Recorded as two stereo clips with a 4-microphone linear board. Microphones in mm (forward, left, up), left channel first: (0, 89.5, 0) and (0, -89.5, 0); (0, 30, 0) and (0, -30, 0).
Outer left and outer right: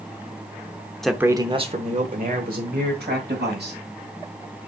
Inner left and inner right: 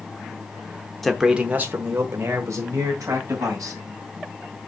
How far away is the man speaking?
About 0.9 m.